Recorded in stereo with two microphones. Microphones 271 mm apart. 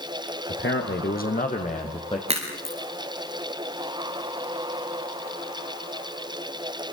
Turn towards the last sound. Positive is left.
turn(degrees=-20)  # may be behind; listen again after turning